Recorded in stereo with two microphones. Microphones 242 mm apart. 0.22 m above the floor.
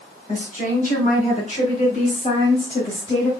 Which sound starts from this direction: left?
A woman speaking, at 0.3 s.